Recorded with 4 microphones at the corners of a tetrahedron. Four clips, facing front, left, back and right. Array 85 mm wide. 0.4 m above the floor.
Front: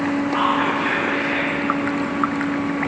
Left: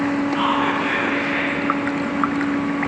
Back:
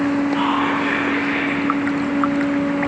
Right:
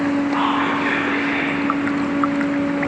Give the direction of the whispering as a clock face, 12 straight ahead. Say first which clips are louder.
Right 1 dB, even; 2 o'clock.